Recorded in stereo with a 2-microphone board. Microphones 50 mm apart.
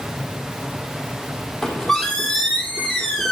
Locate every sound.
1.6 s a squeak: 10° left (ahead or behind), 1.6 m